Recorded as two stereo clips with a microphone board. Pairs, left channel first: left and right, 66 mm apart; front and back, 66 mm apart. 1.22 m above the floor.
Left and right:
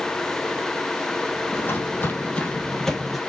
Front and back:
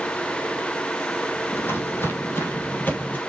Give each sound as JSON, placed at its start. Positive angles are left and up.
{"t": 1.5, "sound": "footsteps", "azimuth_deg": 45, "distance_m": 2.0}